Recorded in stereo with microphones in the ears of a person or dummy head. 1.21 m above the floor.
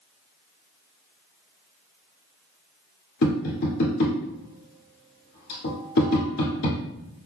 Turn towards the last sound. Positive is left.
turn(degrees=65)  # may be behind; listen again after turning